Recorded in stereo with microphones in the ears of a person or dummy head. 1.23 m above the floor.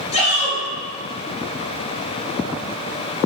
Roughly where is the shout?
Left.